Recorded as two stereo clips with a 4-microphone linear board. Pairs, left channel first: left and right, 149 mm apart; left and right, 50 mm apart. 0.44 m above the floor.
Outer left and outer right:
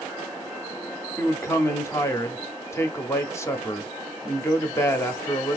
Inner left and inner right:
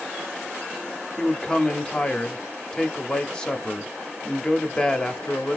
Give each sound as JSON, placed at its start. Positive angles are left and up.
{"t": 1.2, "sound": "a man speaking", "side_deg": 20, "distance_m": 0.8}